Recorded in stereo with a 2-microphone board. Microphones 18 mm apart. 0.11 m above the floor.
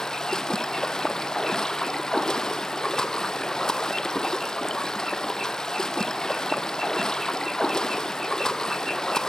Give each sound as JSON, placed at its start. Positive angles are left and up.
{"t": 0.0, "sound": "running water", "side_deg": 30, "distance_m": 1.4}